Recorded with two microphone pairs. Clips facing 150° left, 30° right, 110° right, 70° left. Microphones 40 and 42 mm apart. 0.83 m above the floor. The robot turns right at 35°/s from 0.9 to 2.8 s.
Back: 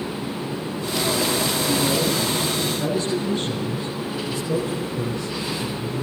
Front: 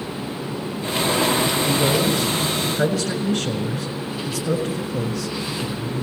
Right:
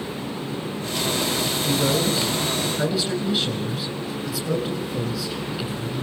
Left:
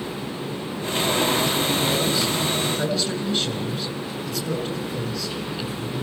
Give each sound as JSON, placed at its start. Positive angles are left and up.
{"t": 1.6, "sound": "a man speaking", "azimuth_deg": -65, "distance_m": 5.5}